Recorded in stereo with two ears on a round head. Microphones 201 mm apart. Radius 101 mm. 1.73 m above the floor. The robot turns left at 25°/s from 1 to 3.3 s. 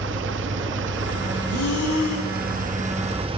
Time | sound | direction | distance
0.0 | an engine running | 90° right | 1.6 m
1.5 | breathing | 70° left (ahead or behind) | 8 m